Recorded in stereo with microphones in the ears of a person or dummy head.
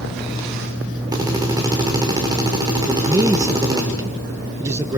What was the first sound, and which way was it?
A drill, 15° right (ahead or behind).